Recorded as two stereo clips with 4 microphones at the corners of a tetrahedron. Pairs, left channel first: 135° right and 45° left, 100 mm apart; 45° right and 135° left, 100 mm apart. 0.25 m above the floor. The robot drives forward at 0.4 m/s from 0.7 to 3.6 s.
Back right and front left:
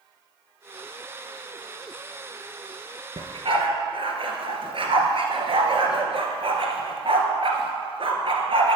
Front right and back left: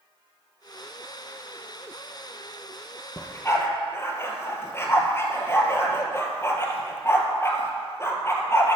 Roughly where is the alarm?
No alarm in this recording.